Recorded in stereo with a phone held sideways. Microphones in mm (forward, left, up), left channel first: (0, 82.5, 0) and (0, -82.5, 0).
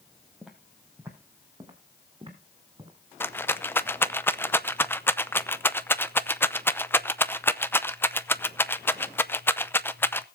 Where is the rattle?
15° left (ahead or behind), 0.6 m.